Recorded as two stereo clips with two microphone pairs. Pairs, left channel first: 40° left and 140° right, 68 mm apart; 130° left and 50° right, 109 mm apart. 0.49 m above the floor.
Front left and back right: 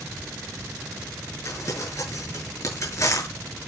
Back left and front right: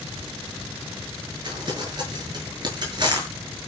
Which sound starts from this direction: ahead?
Crumpling, at 1.4 s.